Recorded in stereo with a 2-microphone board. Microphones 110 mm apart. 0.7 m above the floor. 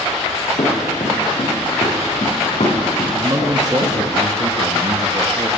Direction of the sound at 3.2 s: 30° right (ahead or behind).